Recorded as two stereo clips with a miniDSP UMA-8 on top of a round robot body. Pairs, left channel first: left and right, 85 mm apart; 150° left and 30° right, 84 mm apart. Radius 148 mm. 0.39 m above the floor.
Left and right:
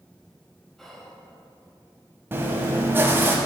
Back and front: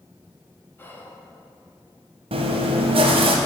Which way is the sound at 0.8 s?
175° left.